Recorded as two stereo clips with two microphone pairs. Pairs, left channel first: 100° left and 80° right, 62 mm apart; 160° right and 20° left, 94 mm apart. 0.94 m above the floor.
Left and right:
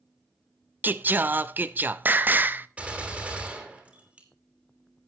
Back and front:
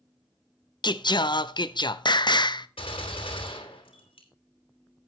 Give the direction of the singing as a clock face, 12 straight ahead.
4 o'clock.